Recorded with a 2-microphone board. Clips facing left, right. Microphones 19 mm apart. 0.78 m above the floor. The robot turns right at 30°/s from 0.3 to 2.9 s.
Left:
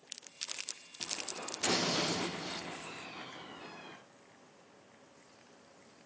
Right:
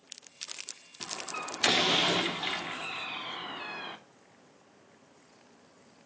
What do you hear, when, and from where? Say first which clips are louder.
1.0 s a door slam: right 4 dB; 55° right (ahead or behind), 1.5 m; by 4.0 s 60° right (ahead or behind), 1.5 m